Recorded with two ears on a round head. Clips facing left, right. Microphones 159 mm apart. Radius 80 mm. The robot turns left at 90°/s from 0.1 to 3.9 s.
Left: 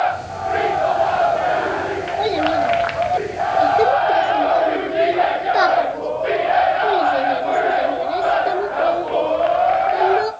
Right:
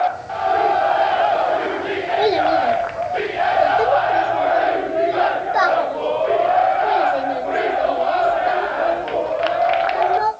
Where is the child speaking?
90° right, 1.7 m; by 10.3 s 115° left, 1.7 m.